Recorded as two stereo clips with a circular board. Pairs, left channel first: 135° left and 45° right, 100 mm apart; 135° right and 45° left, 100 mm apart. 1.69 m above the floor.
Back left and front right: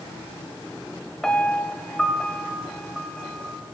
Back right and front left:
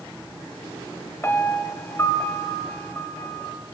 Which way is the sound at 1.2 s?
150° right.